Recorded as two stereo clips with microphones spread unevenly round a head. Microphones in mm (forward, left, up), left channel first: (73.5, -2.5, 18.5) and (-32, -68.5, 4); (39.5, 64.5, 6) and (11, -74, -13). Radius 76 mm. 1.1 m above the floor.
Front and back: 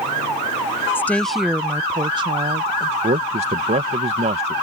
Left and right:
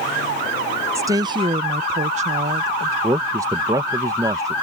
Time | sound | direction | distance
0.9 | a woman speaking | 40° right | ?
3.0 | a man speaking | 160° right | ?